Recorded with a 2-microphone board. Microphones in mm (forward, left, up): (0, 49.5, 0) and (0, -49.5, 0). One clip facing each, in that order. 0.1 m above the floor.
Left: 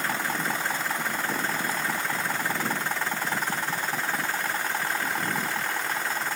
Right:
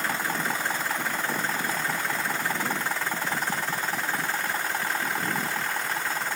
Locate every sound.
Only background noise.